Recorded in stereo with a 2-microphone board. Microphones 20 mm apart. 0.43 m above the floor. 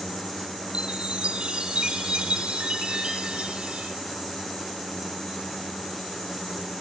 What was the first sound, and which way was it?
A chime, 65° right (ahead or behind).